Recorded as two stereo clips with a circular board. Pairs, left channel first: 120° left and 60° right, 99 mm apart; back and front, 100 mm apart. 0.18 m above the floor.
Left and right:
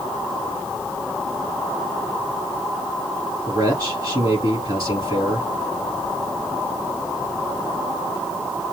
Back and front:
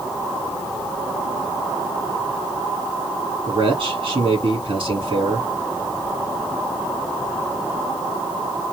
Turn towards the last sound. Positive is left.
turn(degrees=-15)